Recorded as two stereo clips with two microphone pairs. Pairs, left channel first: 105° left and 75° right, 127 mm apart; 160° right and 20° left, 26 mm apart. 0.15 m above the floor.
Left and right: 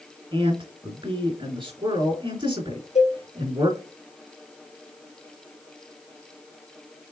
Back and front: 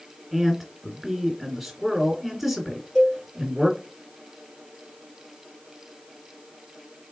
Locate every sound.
0.3 s a man speaking: 55° right, 1.9 m
3.0 s a cowbell: 115° left, 3 m